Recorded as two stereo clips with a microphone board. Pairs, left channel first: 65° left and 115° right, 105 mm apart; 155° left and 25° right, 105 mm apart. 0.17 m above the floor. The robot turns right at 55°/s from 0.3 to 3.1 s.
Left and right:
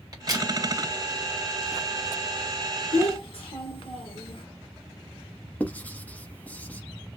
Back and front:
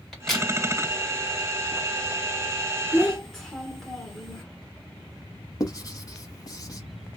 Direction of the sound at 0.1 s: 120° right.